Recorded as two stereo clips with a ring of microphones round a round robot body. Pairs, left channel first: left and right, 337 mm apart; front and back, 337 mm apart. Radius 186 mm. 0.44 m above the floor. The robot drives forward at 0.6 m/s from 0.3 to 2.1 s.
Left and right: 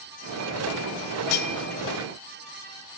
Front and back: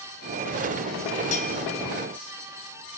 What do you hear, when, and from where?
1.3 s cutlery clinking: 70° left, 1.3 m; by 1.5 s 75° left, 1.3 m